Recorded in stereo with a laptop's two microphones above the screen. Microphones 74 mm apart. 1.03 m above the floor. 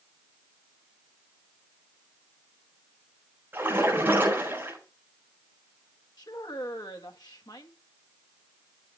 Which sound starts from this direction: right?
A splash, at 3.5 s.